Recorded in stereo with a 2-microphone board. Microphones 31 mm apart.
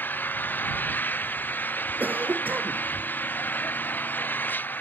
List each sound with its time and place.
0.0 s an engine running: 75° left (ahead or behind)
2.0 s a cough: 70° right (ahead or behind)